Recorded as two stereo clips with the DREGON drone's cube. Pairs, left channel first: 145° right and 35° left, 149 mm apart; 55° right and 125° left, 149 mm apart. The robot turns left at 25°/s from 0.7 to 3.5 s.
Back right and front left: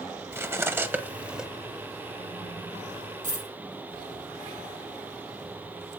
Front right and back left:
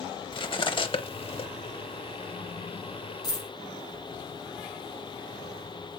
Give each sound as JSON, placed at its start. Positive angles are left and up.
{"t": 0.3, "sound": "cutlery clinking", "azimuth_deg": -30, "distance_m": 0.7}
{"t": 3.2, "sound": "a dropped coin", "azimuth_deg": 5, "distance_m": 3.0}